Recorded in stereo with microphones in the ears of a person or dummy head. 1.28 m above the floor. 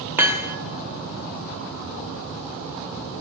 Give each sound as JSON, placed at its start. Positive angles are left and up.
{"t": 0.2, "sound": "hammering", "side_deg": -10, "distance_m": 0.6}